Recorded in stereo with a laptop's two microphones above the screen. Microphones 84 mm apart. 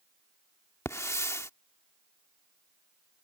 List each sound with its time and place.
0.8 s a hiss: 35° left (ahead or behind)